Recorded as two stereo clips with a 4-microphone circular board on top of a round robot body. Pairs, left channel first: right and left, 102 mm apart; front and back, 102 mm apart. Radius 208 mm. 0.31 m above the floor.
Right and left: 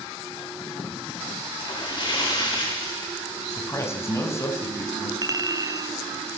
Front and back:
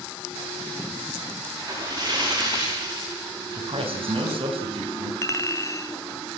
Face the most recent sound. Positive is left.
turn(degrees=50)